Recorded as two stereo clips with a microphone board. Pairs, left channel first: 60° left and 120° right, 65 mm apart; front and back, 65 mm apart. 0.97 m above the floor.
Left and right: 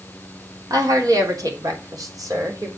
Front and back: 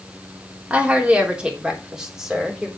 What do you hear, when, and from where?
0.7 s a woman speaking: 110° right, 3 m; by 2.7 s 95° right, 3.5 m